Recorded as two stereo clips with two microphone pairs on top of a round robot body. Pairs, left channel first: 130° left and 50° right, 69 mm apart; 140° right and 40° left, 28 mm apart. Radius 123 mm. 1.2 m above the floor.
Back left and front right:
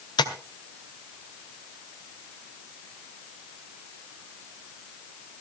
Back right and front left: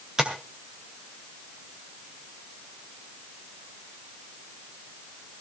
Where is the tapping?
110° left, 1.9 m.